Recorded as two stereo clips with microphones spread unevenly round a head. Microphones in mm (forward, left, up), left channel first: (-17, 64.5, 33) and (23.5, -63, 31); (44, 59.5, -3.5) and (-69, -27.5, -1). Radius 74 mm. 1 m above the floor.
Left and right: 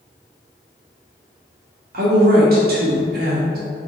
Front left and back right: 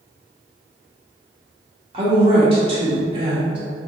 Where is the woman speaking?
85° right, 2 m.